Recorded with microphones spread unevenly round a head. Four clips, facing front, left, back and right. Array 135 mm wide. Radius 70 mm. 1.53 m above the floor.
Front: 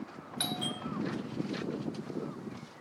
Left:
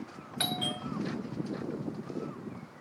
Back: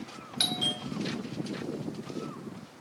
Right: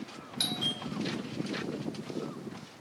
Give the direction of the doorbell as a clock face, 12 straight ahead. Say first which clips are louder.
Left 3 dB, back 2 dB; 8 o'clock.